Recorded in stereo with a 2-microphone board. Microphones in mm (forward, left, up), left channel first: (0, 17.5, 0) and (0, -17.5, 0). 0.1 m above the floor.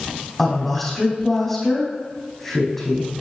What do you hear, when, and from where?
0.4 s a woman speaking: 5° left (ahead or behind), 4 m